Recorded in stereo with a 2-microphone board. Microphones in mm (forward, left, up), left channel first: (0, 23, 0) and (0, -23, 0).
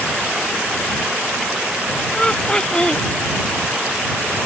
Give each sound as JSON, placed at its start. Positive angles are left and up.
{"t": 2.1, "sound": "laughter", "side_deg": 20}